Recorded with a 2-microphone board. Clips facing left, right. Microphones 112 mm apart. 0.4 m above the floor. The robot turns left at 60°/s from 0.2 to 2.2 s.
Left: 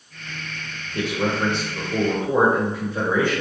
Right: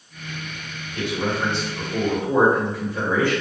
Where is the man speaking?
100° left, 1.1 m; by 3.4 s 25° left, 1.1 m.